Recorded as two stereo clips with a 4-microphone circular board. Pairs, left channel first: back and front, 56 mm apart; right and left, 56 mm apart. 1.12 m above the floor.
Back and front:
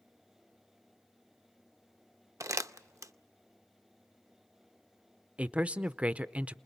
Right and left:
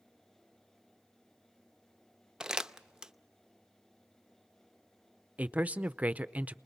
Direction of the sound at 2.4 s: 10° left.